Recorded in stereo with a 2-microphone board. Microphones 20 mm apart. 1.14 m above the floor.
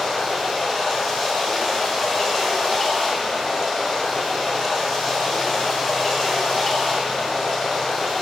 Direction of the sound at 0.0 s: 35° left (ahead or behind).